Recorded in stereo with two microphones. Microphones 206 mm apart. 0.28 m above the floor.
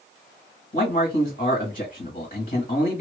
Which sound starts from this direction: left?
A man speaking, at 0.7 s.